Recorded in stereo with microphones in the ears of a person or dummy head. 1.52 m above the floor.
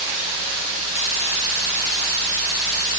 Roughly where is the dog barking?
I don't hear a dog barking.